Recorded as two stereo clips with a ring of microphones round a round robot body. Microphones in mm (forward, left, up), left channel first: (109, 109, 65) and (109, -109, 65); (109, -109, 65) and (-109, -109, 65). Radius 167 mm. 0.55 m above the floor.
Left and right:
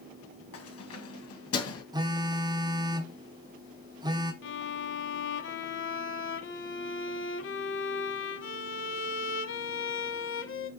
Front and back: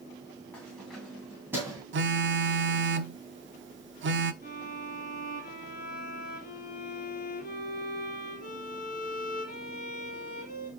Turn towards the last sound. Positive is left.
turn(degrees=65)